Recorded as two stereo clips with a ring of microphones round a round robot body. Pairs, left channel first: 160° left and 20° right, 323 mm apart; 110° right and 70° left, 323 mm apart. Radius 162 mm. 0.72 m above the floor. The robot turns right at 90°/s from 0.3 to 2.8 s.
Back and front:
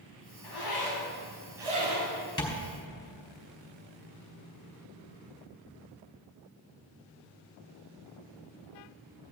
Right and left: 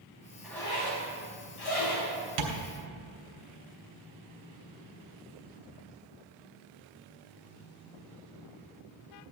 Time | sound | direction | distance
0.4 | a zipper | 155° left | 5.5 m
2.4 | tapping | 80° left | 3 m